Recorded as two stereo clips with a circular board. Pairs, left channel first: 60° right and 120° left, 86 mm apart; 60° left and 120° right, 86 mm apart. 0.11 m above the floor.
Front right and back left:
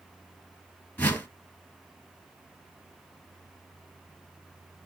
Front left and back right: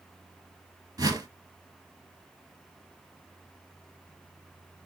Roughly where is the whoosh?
Behind right.